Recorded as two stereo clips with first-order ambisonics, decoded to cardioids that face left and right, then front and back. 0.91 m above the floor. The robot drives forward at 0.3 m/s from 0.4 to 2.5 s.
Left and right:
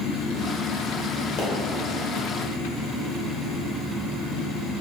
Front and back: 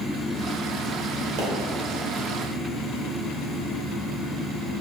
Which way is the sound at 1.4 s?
140° left.